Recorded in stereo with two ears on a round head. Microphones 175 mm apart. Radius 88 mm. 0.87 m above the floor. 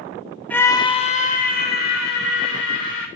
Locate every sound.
0.5 s a scream: 10° left (ahead or behind), 1.2 m; by 3.1 s 65° left (ahead or behind), 3 m